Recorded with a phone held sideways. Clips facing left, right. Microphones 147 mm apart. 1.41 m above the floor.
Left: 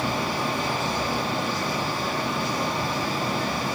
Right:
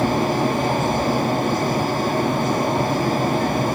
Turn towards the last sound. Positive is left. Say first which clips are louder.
# right 8 dB
turn(degrees=-50)  # may be behind; listen again after turning